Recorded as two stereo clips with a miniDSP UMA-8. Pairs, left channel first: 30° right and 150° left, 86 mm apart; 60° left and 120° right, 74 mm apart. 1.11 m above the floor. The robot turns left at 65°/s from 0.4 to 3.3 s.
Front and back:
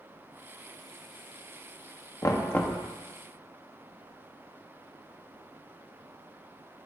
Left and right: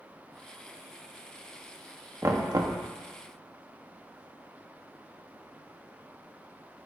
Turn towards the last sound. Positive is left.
turn(degrees=-145)